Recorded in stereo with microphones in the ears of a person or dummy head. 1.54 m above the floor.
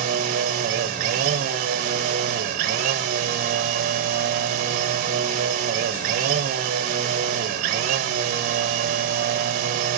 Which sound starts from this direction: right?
A machine running, at 0.0 s.